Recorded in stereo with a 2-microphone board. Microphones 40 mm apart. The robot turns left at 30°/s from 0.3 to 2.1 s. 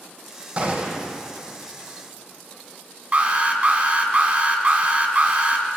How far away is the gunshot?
About 1.9 m.